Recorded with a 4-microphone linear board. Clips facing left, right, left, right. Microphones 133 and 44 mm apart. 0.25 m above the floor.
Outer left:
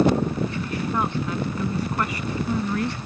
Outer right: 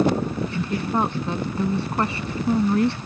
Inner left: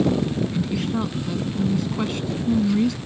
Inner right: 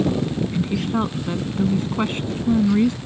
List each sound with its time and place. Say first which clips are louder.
0.5 s a woman speaking: outer right 2 dB, inner right 2 dB; 30° right (ahead or behind)